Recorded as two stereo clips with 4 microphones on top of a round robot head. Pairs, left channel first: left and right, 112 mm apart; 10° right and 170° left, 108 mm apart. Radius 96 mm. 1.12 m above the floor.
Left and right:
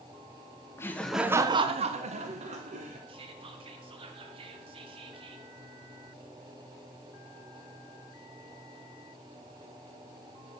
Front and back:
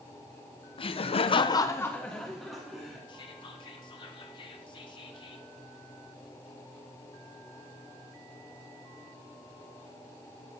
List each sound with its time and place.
0.8 s laughter: 25° left, 0.7 m; by 3.0 s 105° right, 1.4 m
3.1 s whispering: 55° right, 0.9 m